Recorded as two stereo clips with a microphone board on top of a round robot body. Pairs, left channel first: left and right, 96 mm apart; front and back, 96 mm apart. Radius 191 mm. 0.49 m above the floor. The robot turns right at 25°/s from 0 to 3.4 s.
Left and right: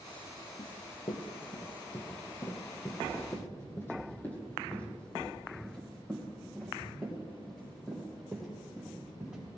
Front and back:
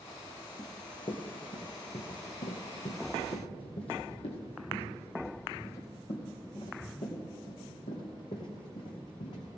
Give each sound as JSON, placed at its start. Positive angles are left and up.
{"t": 0.6, "sound": "running footsteps", "azimuth_deg": 45, "distance_m": 1.2}